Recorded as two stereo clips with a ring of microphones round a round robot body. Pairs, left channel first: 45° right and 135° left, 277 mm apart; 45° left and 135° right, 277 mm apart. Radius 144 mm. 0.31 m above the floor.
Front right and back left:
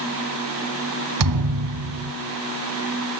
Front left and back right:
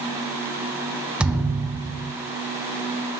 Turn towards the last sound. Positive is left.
turn(degrees=140)